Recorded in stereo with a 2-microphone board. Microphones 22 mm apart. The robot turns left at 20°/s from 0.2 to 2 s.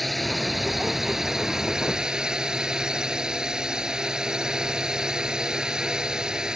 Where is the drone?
5° left; by 6.6 s 30° right.